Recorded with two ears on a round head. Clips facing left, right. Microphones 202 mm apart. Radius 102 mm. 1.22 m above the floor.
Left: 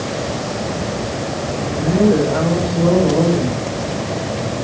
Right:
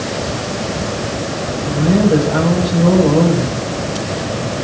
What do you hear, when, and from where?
1.7 s a woman speaking: 40° right (ahead or behind), 8 m